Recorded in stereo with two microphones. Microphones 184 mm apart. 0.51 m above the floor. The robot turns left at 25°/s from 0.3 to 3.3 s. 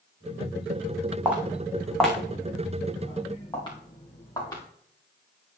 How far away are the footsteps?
About 2.5 m.